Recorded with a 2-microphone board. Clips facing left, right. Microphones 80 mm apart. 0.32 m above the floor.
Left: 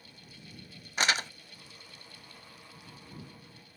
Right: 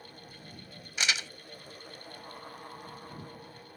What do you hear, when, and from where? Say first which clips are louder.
1.0 s crumpling: left 4 dB; 45° left (ahead or behind)